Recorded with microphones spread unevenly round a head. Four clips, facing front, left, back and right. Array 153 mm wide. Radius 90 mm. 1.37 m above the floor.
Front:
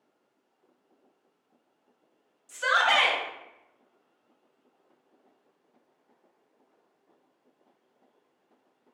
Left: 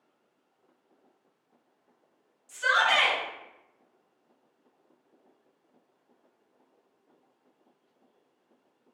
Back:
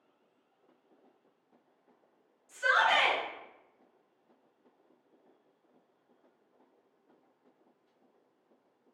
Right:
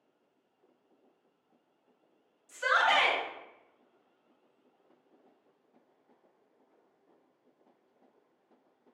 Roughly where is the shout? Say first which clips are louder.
Left 2 dB, front 2 dB; ahead.